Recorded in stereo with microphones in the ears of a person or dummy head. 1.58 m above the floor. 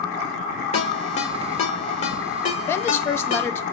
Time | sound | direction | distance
0.7 | a ringtone | 30° left (ahead or behind) | 1.5 m
2.7 | a woman speaking | 15° left (ahead or behind) | 0.6 m